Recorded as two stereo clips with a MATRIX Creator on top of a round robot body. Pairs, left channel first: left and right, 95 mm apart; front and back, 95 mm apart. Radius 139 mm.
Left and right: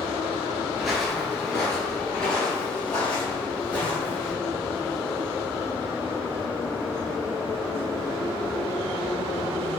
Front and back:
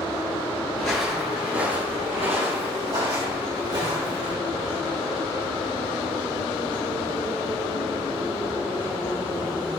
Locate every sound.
0.8 s footsteps: 15° right, 1.0 m; by 4.3 s 160° left, 4.5 m